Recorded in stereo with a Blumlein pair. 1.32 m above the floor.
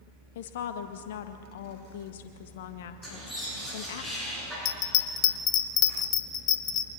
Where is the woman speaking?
55° left, 1.6 m.